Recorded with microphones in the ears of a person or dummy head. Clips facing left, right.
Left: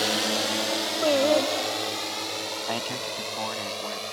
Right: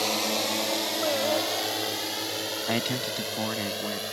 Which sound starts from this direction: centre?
A drone, at 0.0 s.